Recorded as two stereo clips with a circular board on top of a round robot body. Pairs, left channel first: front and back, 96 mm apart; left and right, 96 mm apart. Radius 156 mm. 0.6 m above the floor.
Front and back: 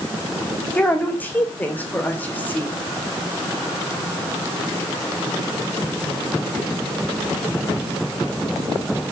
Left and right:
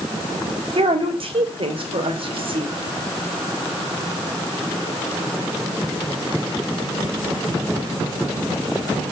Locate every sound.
0.8 s a woman speaking: 70° right, 3.5 m